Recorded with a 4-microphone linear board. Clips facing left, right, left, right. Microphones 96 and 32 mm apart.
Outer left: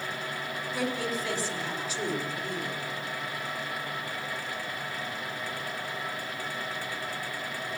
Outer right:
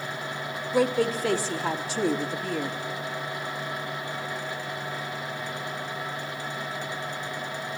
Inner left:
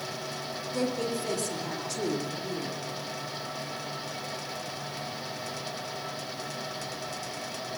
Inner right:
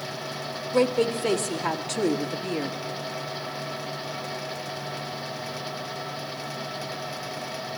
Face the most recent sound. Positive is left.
turn(degrees=-85)